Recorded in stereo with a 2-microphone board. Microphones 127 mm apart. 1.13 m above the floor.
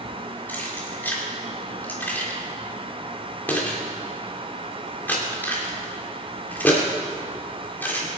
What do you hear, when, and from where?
0.5 s keys jangling: 15° left (ahead or behind), 2.5 m